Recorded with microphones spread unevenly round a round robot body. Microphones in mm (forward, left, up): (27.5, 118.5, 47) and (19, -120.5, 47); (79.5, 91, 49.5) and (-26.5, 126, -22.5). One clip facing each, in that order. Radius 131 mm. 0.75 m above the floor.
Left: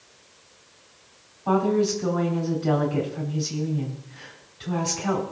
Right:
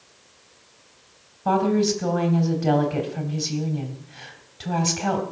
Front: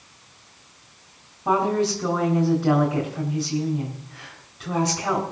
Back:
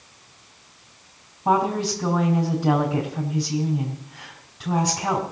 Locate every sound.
1.4 s a woman speaking: 125° right, 3.5 m